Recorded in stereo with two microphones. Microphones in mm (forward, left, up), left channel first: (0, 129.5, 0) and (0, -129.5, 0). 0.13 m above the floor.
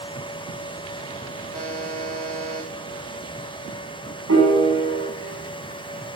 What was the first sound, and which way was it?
A buzzer, 35° right (ahead or behind).